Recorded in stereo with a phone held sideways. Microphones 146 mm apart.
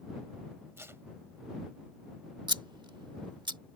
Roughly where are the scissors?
Right.